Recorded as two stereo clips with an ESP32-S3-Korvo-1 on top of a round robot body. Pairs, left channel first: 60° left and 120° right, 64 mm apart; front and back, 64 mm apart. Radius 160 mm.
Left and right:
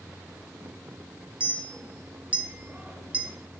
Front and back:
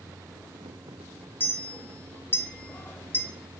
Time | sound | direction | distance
1.4 | a clink | 50° right | 0.6 m